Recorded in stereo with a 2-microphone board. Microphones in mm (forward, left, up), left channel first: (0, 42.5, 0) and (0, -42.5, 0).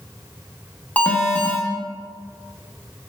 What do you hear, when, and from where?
1.0 s an alarm: 20° left (ahead or behind), 0.7 m